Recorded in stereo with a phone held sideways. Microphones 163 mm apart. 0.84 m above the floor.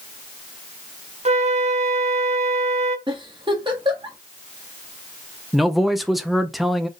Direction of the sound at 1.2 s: 45° right (ahead or behind).